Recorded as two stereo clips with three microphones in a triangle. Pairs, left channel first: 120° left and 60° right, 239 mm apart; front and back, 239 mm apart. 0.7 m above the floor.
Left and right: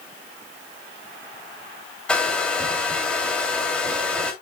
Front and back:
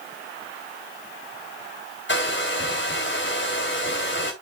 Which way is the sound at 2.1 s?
35° left.